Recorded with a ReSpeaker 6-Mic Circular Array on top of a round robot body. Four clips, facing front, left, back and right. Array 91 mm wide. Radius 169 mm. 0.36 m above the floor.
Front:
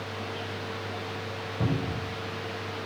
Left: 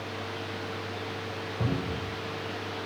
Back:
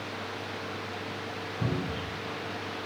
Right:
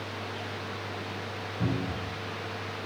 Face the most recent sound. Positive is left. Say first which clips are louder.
# even, front 2 dB
turn(degrees=10)